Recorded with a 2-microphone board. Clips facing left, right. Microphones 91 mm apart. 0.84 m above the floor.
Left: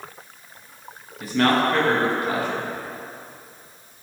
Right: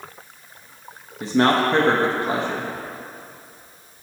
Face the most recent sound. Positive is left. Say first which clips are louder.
# right 2 dB
turn(degrees=-25)  # may be behind; listen again after turning